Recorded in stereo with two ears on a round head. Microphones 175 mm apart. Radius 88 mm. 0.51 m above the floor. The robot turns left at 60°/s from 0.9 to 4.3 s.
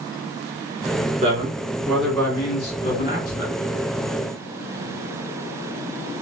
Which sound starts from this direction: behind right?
A man speaking, at 1.2 s.